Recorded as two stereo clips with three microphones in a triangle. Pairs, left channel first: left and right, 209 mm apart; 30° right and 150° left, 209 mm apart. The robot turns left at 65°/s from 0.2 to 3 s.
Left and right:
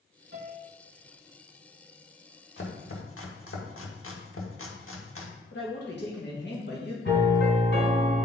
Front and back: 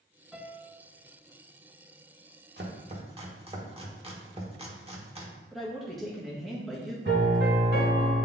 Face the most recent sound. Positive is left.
turn(degrees=115)